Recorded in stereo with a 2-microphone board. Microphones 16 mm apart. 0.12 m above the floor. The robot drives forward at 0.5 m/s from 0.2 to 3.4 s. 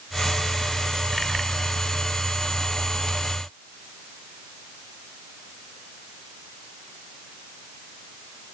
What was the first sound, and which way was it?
Only background noise.